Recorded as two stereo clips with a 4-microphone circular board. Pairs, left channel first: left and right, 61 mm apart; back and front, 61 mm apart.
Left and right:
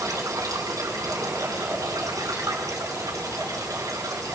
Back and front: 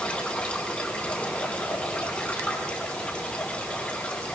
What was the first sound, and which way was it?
Running water, 110° right.